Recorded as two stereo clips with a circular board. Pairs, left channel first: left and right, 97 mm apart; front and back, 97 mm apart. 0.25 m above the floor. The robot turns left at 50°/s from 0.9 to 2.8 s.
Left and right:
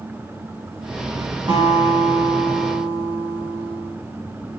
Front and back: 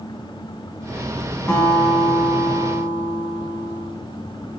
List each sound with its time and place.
1.5 s a guitar: 65° right, 1.8 m; by 3.9 s 135° right, 1.8 m